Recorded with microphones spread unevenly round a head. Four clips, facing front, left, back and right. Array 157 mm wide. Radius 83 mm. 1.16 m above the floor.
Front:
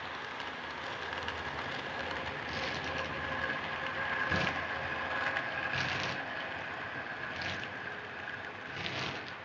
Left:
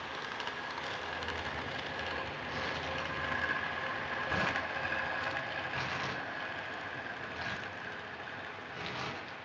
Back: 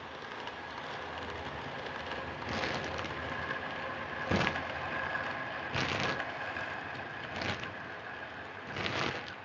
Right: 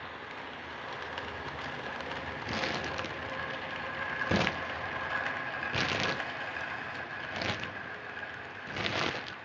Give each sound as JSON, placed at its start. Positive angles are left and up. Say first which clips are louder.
{"t": 2.5, "sound": "crumpling", "louder": "right 6 dB, back 2 dB", "azimuth_deg": -105, "distance_m": 0.7}